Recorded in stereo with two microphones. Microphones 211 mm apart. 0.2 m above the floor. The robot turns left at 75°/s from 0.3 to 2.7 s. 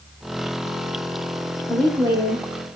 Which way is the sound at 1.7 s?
10° left.